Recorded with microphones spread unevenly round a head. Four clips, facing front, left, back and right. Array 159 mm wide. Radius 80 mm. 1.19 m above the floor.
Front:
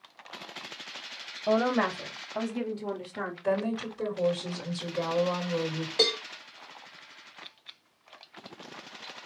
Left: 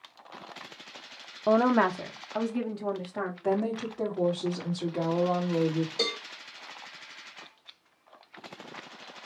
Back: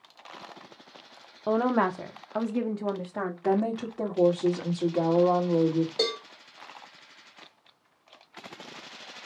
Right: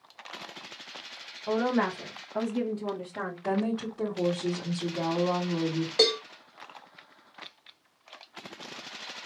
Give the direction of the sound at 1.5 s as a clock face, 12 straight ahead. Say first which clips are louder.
Left 4 dB, back 1 dB; 8 o'clock.